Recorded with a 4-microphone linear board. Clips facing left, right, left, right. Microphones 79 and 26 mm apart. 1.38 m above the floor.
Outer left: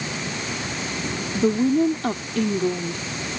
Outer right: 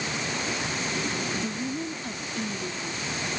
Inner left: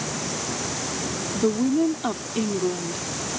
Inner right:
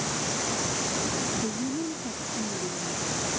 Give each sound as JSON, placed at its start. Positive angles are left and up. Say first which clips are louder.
{"t": 1.4, "sound": "a woman speaking", "louder": "outer left 12 dB, inner left 9 dB", "side_deg": 75}